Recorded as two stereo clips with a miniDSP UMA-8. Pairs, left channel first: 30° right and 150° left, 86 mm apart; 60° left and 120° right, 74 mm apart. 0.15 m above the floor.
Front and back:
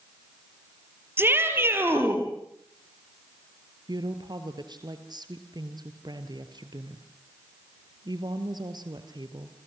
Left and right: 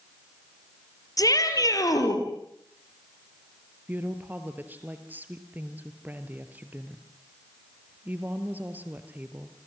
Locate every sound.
1.2 s a shout: 85° left, 4 m
3.9 s a woman speaking: 175° left, 2.5 m